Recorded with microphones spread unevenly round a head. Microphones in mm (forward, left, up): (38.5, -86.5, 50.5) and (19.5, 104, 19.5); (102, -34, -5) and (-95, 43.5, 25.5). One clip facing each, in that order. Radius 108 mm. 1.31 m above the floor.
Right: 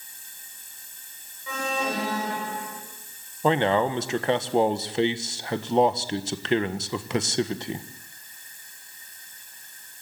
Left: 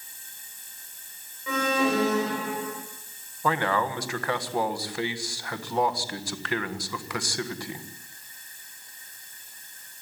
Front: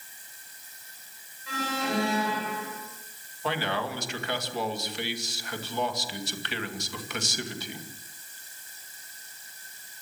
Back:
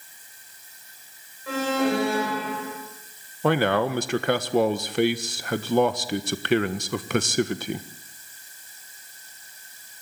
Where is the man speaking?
155° right, 1.4 m.